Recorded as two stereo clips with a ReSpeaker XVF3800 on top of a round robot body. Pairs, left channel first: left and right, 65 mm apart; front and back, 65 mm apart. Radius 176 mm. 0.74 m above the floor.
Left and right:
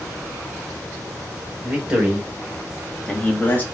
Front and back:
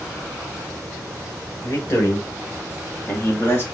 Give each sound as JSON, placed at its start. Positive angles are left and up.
{"t": 1.6, "sound": "a man speaking", "azimuth_deg": -25, "distance_m": 1.6}